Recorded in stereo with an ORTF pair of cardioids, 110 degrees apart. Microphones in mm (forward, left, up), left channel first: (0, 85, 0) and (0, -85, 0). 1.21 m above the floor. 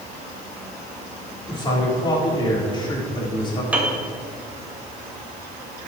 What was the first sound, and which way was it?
A man speaking, 25° left.